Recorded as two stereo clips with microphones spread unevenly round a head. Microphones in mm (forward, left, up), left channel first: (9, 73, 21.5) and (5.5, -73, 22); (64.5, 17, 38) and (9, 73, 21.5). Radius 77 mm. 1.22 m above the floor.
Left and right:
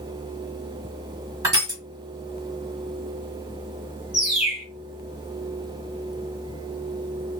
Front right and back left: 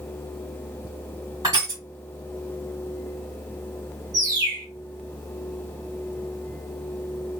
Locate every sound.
1.4 s crushing: 155° right, 1.5 m
4.1 s a bird: 175° right, 1.2 m